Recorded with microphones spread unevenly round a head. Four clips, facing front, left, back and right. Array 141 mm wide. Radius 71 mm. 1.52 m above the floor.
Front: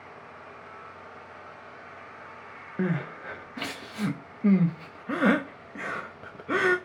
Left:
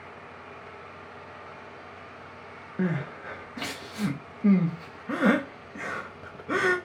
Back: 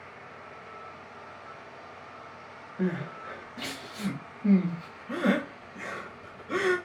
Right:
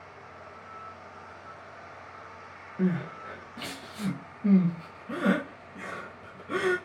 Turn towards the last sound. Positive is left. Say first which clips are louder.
# even, front 1 dB
turn(degrees=30)